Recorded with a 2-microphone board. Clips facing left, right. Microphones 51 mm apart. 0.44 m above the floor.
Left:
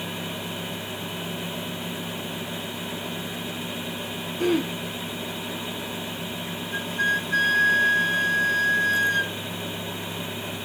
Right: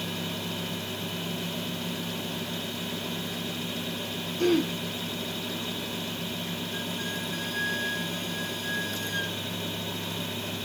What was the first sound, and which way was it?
Throat clearing, 10° left (ahead or behind).